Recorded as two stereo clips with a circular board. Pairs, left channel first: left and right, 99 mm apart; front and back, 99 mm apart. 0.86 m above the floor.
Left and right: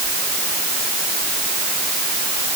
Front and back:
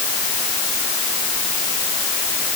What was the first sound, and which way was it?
Only background noise.